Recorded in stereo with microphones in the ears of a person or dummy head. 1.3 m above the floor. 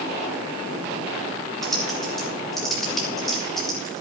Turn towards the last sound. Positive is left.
turn(degrees=0)  # may be behind; listen again after turning